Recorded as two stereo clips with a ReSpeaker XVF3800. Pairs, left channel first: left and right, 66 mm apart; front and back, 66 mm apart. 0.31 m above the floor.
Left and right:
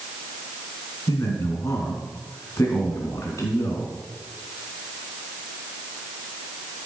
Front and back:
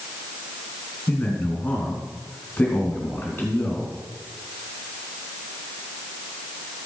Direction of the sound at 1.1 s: 60° left.